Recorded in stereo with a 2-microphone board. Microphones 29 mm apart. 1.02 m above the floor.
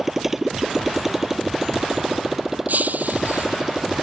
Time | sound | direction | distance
0.0 | a motorcycle | 10° right (ahead or behind) | ?
2.7 | breaking glass | 70° right (ahead or behind) | ?